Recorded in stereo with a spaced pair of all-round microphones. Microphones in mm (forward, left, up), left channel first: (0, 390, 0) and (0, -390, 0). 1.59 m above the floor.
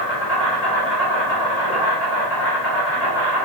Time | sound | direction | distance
0.0 | an insect | 35° left (ahead or behind) | 1.2 m